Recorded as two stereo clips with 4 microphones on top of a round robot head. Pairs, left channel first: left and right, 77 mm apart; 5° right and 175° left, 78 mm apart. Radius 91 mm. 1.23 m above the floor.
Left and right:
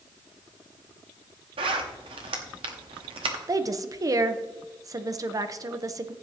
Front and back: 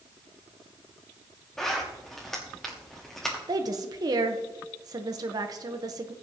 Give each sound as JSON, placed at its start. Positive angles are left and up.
{"t": 1.6, "sound": "a zipper", "azimuth_deg": -90, "distance_m": 1.0}
{"t": 3.5, "sound": "a woman speaking", "azimuth_deg": -140, "distance_m": 0.9}